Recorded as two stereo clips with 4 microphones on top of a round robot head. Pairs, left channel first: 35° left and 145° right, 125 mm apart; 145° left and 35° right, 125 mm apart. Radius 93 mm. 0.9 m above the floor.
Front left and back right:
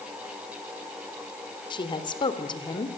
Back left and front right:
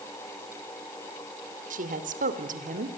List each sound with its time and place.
1.7 s a woman speaking: 20° right, 3.5 m